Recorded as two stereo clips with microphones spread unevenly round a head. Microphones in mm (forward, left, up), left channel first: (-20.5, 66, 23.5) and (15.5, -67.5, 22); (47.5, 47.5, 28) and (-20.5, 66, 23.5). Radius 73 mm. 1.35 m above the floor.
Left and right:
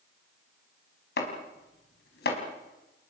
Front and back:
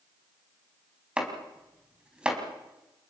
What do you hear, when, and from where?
1.2 s chopping: 90° left, 5 m